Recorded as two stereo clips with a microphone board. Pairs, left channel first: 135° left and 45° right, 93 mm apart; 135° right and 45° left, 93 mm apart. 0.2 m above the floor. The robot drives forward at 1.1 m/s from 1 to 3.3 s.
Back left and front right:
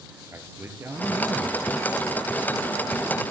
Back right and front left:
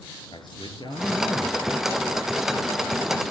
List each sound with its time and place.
0.3 s a man speaking: 105° right, 4 m; by 1.9 s 120° right, 4.5 m